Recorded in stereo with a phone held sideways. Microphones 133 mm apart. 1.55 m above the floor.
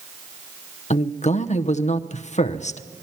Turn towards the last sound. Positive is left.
turn(degrees=60)  # may be behind; listen again after turning